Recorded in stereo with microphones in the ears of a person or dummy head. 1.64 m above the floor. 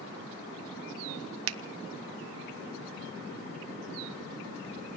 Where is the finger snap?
70° right (ahead or behind), 0.6 m.